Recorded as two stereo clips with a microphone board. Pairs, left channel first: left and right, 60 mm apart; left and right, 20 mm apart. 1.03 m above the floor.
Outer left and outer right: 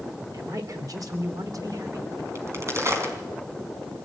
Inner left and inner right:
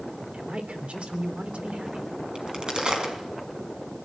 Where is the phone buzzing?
No phone buzzing in this recording.